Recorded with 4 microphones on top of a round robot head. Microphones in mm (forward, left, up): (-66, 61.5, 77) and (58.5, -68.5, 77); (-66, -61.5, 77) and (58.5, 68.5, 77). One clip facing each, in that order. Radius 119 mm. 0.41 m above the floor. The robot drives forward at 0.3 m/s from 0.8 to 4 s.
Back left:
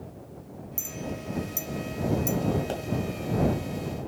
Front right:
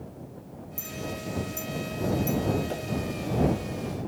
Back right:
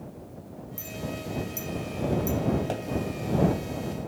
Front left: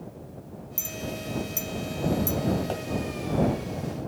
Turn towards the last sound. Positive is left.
turn(degrees=150)